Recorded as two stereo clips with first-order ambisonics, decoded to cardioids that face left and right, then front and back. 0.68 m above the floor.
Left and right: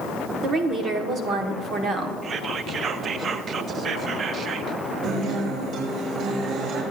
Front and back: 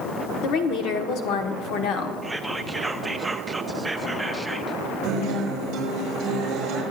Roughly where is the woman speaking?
Ahead right.